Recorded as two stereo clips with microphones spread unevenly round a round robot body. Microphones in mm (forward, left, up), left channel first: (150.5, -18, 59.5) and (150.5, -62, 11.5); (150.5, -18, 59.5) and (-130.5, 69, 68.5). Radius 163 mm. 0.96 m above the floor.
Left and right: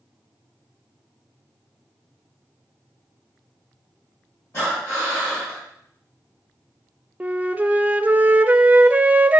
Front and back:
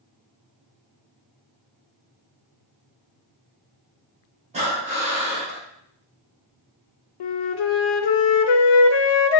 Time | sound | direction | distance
4.5 | breathing | 95° left | 3 m
7.2 | a flute | 25° right | 0.6 m